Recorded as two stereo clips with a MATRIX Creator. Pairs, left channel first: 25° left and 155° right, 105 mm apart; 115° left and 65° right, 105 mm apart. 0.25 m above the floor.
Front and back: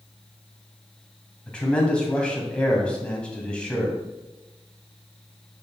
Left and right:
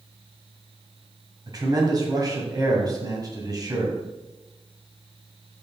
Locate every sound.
1.5 s a man speaking: 55° right, 2.0 m